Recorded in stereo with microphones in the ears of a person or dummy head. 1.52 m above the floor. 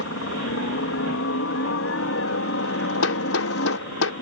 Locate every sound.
0.0 s a helicopter: 65° left (ahead or behind)
3.0 s hammering: 80° left